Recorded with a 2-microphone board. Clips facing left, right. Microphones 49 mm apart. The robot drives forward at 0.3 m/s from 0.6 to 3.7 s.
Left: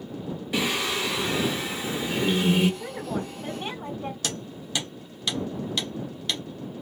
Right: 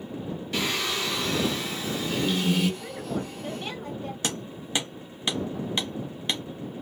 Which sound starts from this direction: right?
Hammering, at 4.2 s.